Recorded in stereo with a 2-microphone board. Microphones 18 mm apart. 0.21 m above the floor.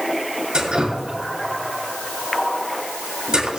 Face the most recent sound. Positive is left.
turn(degrees=-50)  # may be behind; listen again after turning